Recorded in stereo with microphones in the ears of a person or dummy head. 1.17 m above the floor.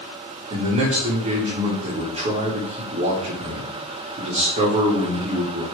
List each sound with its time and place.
0.5 s a man speaking: 40° right (ahead or behind), 1.5 m